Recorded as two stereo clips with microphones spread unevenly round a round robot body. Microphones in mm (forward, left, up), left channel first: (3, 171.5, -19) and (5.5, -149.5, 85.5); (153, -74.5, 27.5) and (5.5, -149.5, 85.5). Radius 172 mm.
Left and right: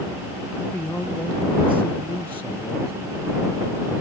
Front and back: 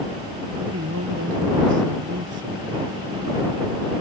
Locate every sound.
0.6 s a man speaking: 175° left